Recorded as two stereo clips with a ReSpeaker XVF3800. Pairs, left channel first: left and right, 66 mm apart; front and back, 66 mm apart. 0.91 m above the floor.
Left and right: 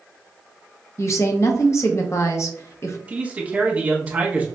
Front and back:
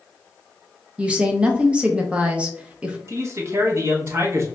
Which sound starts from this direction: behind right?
A man speaking, at 3.1 s.